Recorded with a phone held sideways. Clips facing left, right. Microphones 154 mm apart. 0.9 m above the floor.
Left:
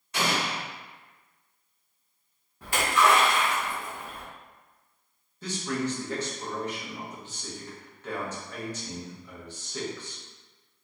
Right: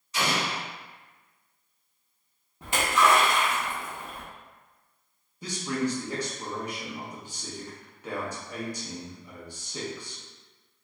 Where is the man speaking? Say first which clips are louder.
Right 1 dB; 10° right (ahead or behind), 0.9 m.